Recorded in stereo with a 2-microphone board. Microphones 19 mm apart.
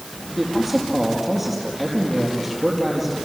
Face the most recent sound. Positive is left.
turn(degrees=-5)  # may be behind; listen again after turning